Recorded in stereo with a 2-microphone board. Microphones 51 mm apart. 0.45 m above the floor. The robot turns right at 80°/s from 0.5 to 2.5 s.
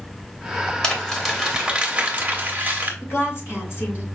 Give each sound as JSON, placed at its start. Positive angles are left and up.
{"t": 0.8, "sound": "crumpling", "side_deg": 15, "distance_m": 1.4}
{"t": 3.0, "sound": "a woman speaking", "side_deg": 50, "distance_m": 2.0}